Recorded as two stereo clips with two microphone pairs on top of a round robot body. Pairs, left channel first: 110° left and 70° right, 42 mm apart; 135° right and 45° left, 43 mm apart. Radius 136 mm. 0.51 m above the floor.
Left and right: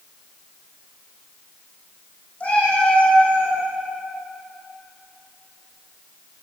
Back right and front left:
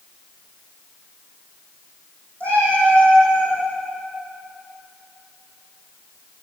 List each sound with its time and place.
2.4 s a cat meowing: 170° left, 5.5 m; by 3.6 s straight behind, 5.5 m